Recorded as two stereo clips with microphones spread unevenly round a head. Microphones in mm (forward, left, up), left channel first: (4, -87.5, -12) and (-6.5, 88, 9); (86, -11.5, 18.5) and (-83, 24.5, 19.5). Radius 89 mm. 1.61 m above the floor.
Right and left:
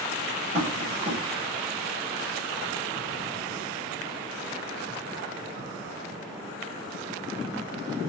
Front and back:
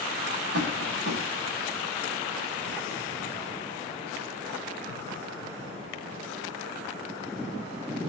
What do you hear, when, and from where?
0.5 s tapping: 145° left, 6.5 m